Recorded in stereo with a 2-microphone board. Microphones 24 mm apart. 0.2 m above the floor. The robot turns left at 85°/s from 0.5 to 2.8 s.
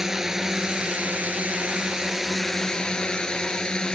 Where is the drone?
20° right; by 4.0 s 145° left.